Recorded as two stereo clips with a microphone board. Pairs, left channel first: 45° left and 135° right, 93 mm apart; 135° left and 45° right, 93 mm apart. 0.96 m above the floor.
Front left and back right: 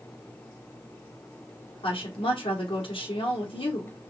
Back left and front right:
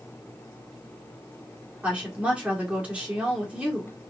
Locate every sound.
1.8 s a woman speaking: 30° left, 2 m